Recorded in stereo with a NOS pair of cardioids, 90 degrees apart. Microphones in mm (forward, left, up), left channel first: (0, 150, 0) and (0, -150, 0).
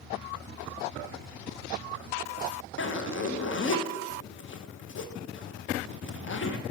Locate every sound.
2.8 s a zipper: 45° left, 0.9 m